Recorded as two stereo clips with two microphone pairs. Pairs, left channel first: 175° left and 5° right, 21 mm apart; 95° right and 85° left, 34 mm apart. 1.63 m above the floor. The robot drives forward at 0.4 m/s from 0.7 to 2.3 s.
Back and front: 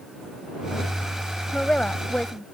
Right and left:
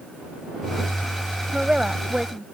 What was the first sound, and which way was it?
A woman speaking, 145° left.